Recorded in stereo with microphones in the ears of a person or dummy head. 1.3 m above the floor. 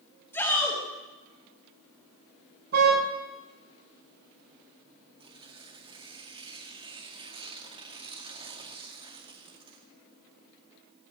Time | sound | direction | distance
0.3 | a shout | 10° left (ahead or behind) | 6 m
2.7 | a car horn | 60° right (ahead or behind) | 5 m
5.2 | tearing paper | 30° right (ahead or behind) | 1.9 m